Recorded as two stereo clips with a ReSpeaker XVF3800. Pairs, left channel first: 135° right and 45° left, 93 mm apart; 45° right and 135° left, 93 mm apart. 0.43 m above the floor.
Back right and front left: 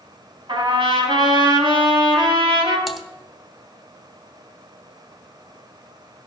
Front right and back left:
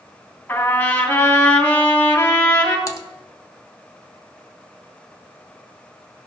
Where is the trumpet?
20° left, 4 m.